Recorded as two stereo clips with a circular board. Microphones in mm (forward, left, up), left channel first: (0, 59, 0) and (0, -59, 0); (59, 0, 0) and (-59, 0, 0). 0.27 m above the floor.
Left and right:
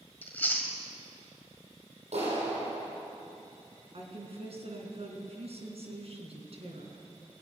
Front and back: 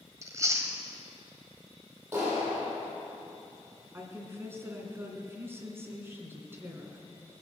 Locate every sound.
0.2 s chewing: 150° left, 1.7 m
2.1 s a clap: 110° right, 6.5 m
3.9 s a woman speaking: 110° right, 2.5 m